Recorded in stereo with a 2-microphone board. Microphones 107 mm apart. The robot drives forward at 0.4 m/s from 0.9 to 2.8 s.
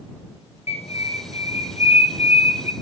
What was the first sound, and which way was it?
A bird, 75° left (ahead or behind).